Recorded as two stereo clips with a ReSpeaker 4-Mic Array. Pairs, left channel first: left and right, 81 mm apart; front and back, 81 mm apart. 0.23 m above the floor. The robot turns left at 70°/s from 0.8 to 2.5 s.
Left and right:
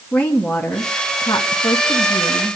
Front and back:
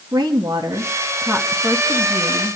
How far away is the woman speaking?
About 2.5 m.